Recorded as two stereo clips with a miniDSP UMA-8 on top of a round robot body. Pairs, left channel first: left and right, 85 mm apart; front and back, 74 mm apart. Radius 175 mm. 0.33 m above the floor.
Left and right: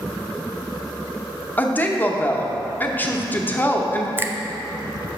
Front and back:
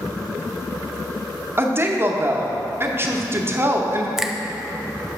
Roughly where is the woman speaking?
Behind left.